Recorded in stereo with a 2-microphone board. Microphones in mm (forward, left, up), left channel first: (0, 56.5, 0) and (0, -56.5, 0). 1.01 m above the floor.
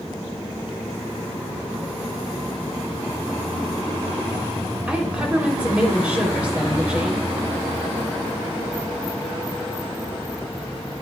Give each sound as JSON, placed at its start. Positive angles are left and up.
{"t": 4.9, "sound": "a woman speaking", "side_deg": -10, "distance_m": 3.0}